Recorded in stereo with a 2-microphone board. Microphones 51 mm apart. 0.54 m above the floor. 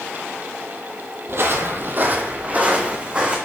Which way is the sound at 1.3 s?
55° right (ahead or behind).